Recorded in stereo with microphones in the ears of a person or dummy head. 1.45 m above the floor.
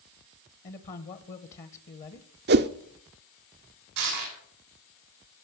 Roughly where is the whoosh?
Right.